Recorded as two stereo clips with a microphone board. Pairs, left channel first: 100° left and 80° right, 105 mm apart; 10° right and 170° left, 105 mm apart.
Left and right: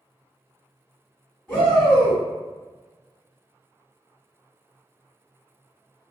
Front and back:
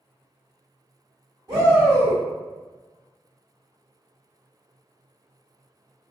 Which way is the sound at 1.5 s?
170° right.